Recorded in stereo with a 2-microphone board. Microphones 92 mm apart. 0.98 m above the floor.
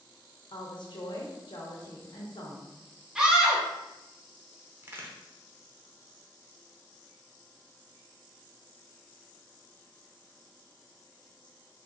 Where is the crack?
25° right (ahead or behind), 0.7 m.